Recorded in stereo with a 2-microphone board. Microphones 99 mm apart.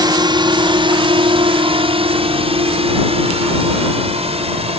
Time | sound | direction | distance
0.0 | a drone | 45° right (ahead or behind) | ?